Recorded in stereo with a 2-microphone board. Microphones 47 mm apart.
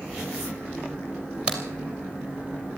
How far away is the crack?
About 2.5 m.